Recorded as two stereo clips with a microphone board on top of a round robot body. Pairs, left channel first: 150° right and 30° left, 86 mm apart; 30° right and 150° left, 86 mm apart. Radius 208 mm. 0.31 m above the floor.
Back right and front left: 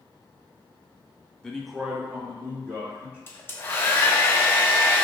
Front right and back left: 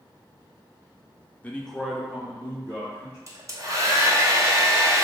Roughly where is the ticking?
I don't hear ticking.